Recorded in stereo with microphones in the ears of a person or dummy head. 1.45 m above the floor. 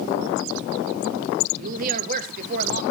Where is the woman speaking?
45° right (ahead or behind), 1.6 m.